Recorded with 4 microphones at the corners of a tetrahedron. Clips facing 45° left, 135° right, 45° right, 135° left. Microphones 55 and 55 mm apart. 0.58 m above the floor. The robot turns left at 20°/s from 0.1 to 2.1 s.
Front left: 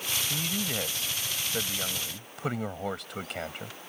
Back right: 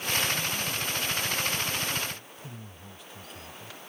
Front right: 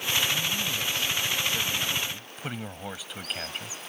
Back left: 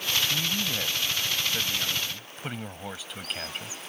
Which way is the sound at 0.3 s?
80° left.